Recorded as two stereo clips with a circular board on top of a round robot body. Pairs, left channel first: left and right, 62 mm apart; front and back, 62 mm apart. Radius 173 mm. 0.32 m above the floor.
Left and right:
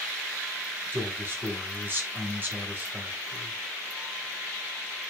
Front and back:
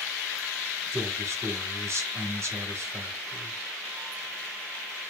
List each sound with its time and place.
0.9 s a man speaking: 145° right, 3 m